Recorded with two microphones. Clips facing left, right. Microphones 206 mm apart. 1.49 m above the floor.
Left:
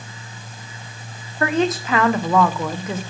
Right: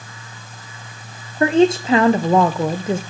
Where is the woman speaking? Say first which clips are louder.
Right 6 dB; 30° right (ahead or behind), 0.8 m.